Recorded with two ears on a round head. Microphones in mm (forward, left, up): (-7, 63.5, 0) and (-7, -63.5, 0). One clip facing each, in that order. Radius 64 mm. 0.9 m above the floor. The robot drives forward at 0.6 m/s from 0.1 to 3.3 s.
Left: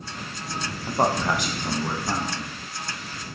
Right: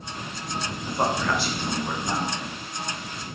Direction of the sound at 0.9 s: 20° left (ahead or behind).